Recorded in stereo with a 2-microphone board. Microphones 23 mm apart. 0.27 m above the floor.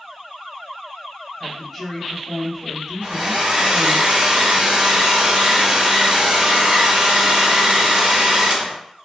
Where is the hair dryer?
60° right (ahead or behind), 1.0 m.